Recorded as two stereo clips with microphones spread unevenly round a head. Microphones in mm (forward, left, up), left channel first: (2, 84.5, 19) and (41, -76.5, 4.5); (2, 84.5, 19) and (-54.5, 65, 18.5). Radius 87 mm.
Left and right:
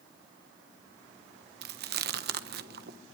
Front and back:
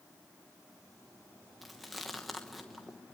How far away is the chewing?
About 0.9 m.